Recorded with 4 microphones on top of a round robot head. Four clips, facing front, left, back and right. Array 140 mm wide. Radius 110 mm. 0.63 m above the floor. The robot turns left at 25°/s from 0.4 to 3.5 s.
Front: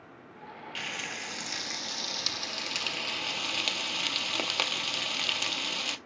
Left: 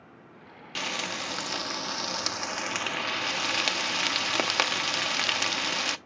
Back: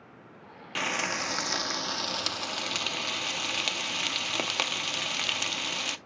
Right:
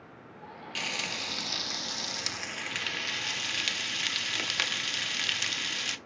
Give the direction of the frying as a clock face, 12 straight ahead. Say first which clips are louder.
Left 5 dB, back 10 dB; 7 o'clock.